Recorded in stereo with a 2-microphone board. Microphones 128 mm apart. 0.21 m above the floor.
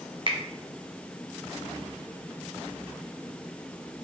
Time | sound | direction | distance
0.3 | a finger snap | 40° right (ahead or behind) | 1.5 m